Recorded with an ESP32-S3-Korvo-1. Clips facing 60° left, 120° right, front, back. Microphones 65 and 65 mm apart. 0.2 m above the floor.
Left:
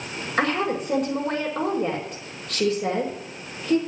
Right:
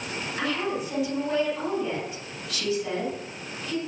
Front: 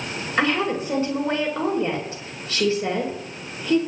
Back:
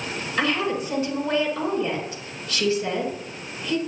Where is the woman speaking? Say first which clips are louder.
Left 6 dB, front 2 dB; 55° left, 5 m.